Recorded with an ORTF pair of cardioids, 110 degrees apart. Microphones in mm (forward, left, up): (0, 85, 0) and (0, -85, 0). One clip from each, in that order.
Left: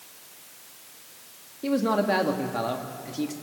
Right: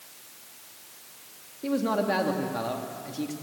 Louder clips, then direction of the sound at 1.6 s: Left 2 dB; 10° left.